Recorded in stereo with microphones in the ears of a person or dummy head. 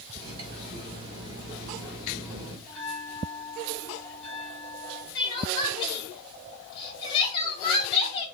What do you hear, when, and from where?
0.1 s cutlery clinking: 30° right (ahead or behind), 4 m
2.7 s a bell: 5° left (ahead or behind), 4.5 m
5.2 s crying: 20° left (ahead or behind), 3 m